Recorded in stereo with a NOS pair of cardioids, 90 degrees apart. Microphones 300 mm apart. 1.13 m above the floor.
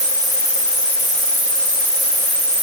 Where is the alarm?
No alarm in this recording.